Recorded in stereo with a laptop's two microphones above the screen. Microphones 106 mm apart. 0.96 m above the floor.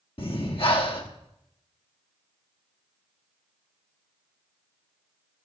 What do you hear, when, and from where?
0.2 s breathing: 60° left (ahead or behind), 1.1 m